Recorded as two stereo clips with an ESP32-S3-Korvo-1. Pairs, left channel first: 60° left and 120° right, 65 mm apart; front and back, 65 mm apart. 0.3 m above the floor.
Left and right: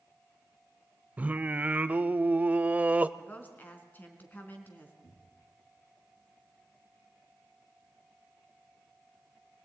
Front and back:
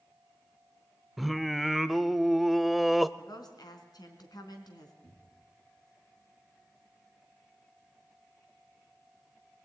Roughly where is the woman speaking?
Ahead.